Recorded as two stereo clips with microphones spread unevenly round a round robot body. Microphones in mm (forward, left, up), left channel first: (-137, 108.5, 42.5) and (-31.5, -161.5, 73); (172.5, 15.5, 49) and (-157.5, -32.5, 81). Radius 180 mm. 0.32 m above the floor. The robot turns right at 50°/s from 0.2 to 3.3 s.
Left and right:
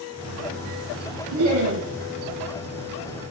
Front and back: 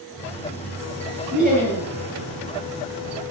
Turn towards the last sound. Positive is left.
turn(degrees=-15)